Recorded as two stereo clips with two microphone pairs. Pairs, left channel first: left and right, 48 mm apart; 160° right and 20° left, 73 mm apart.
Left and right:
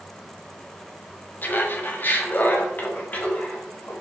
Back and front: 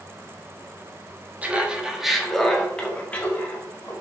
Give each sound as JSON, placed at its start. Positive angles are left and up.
{"t": 1.4, "sound": "laughter", "azimuth_deg": 80, "distance_m": 1.4}